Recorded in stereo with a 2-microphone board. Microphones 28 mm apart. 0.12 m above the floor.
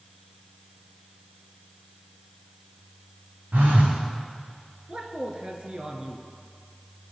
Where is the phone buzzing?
85° right, 4 m.